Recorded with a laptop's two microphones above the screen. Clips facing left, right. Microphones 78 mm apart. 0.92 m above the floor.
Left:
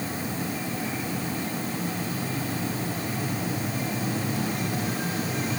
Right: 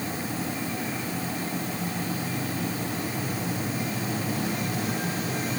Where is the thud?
I don't hear a thud.